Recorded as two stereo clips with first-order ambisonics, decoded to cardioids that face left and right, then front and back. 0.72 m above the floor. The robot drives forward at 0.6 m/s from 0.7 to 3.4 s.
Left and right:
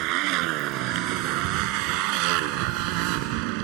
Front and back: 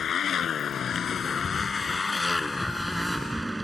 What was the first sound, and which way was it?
A motorcycle, 60° right.